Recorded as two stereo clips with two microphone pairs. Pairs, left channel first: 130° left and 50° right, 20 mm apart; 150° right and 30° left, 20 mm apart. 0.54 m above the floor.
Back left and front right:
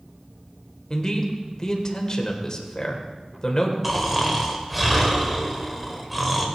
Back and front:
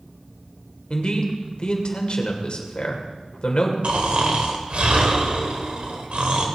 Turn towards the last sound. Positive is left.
turn(degrees=30)